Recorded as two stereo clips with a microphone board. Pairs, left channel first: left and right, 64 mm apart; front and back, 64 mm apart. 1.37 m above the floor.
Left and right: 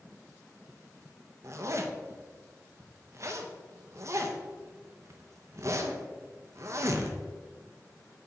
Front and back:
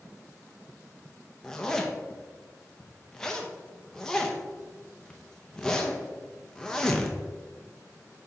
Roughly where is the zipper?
Right.